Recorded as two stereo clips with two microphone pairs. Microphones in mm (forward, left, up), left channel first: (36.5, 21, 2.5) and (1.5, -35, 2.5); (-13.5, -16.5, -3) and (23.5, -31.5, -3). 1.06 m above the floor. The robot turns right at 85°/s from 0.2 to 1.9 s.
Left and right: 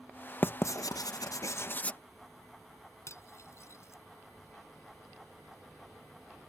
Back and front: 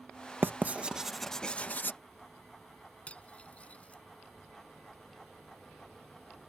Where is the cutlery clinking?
100° left.